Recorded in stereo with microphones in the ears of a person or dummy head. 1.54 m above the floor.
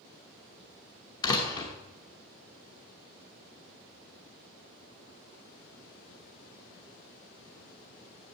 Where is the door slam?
20° left (ahead or behind), 1.0 m.